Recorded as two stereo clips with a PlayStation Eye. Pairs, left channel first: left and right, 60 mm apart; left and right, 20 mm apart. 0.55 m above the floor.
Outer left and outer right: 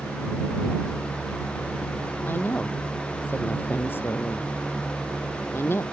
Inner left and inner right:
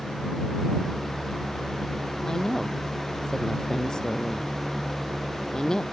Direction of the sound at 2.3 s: 30° left (ahead or behind).